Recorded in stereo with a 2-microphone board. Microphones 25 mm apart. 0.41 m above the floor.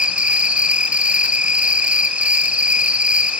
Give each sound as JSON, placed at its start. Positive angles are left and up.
{"t": 0.0, "sound": "an insect", "side_deg": -60, "distance_m": 1.1}